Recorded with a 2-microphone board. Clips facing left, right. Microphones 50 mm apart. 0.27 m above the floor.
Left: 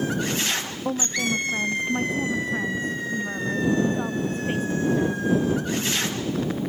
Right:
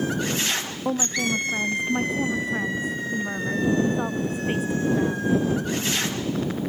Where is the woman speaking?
5° right (ahead or behind); by 5.3 s 10° right (ahead or behind).